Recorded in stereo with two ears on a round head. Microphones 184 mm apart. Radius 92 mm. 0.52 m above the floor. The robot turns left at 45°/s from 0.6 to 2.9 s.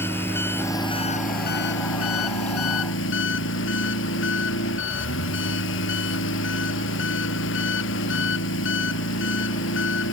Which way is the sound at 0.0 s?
170° left.